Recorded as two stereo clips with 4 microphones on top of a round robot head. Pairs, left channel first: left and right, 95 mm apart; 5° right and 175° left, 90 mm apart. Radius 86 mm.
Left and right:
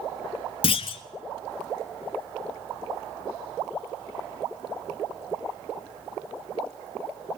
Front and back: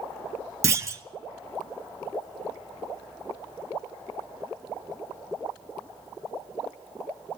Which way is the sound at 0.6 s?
115° left.